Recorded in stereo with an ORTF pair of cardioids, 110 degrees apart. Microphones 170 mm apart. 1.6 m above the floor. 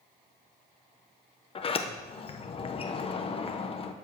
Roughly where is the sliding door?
Ahead left.